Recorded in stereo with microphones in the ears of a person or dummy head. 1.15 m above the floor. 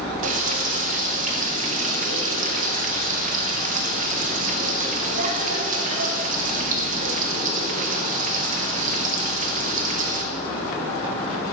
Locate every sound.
0.2 s frying: 45° right (ahead or behind), 1.0 m